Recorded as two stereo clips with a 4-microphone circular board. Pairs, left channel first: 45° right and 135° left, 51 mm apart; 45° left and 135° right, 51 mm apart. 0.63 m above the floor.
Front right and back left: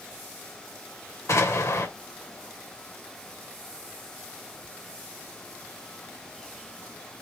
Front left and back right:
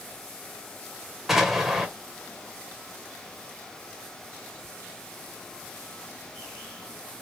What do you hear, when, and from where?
1.3 s an explosion: 50° right, 2 m